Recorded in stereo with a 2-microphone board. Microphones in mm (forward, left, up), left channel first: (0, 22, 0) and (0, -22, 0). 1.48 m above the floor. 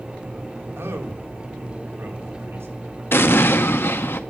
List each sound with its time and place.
0.8 s a man speaking: 80° right, 2 m
3.1 s an explosion: 65° left (ahead or behind), 0.8 m